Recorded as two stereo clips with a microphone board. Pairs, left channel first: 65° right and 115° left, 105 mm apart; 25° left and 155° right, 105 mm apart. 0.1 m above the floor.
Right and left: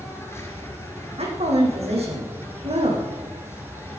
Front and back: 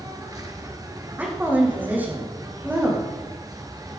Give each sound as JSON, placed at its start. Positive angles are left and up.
{"t": 0.0, "sound": "an insect", "azimuth_deg": -120, "distance_m": 2.5}
{"t": 1.2, "sound": "a woman speaking", "azimuth_deg": 130, "distance_m": 6.0}